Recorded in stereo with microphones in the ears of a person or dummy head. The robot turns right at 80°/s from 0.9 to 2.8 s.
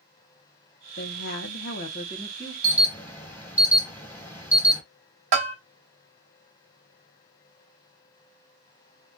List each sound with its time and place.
1.0 s a woman speaking: 60° left, 0.6 m; by 2.5 s 175° right, 0.6 m
2.6 s an alarm: 5° right (ahead or behind), 1.2 m; by 4.8 s 10° left (ahead or behind), 1.2 m
5.3 s a bell: 45° right (ahead or behind), 1.4 m